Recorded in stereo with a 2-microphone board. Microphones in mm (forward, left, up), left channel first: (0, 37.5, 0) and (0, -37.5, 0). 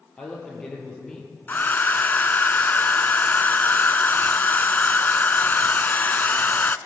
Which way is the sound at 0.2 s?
10° left (ahead or behind).